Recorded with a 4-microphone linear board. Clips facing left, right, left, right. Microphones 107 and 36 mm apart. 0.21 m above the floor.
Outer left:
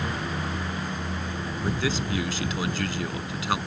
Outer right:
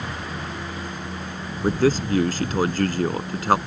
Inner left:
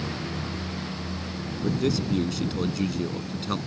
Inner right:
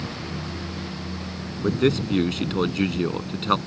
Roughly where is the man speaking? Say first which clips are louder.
Outer right 9 dB, inner right 4 dB; right.